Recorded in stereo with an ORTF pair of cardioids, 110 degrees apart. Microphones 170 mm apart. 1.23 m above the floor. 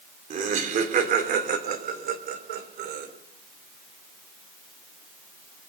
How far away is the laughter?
About 3.5 m.